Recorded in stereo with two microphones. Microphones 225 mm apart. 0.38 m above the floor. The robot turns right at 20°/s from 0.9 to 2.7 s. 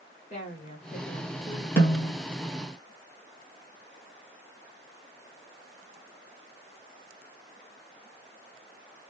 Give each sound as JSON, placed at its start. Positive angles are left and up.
{"t": 0.3, "sound": "a woman speaking", "side_deg": 35, "distance_m": 1.7}
{"t": 1.8, "sound": "a snare drum", "side_deg": 10, "distance_m": 1.7}